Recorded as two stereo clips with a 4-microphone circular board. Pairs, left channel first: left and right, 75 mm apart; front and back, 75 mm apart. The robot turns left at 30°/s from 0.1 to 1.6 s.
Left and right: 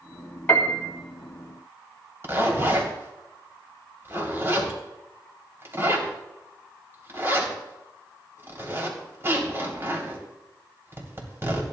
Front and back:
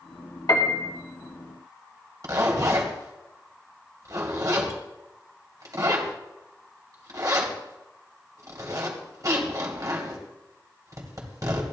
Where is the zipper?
145° right, 2.5 m.